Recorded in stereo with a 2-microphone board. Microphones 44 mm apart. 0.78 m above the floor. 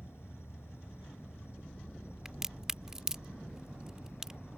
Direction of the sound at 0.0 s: 75° left (ahead or behind).